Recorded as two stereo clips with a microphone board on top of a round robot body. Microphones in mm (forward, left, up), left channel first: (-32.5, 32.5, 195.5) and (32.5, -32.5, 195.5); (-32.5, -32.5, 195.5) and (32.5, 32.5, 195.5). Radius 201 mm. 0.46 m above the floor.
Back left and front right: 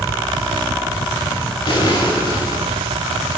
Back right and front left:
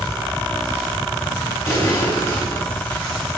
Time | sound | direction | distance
1.7 | an explosion | 170° left | 6.5 m